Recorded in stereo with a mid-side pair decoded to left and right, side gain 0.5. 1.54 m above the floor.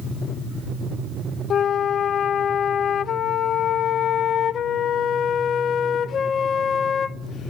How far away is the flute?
About 0.6 m.